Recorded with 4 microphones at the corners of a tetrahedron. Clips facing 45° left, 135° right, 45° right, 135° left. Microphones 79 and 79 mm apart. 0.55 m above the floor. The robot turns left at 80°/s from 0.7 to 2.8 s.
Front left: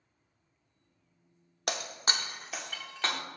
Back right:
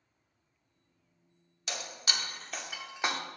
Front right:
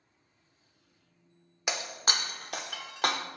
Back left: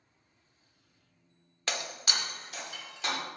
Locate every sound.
1.7 s breaking glass: 30° left, 0.6 m; by 3.2 s 60° right, 0.6 m